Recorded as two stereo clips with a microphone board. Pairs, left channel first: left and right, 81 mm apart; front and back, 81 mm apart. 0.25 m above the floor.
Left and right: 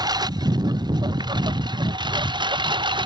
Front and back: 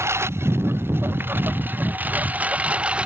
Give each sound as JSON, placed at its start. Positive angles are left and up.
{"t": 0.0, "sound": "a lawn mower", "azimuth_deg": -125}